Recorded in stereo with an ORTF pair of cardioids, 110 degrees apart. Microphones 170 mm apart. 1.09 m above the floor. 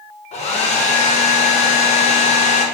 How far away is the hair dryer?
About 0.6 m.